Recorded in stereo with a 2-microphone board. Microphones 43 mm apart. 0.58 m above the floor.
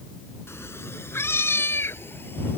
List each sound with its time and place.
0.5 s a cat meowing: 85° left; by 2.6 s 60° left (ahead or behind)